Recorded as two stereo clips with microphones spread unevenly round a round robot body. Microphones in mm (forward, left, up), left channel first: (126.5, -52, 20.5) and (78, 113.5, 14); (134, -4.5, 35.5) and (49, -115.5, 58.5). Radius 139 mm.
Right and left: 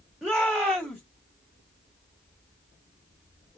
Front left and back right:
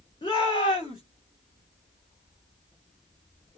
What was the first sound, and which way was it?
A shout, 25° left.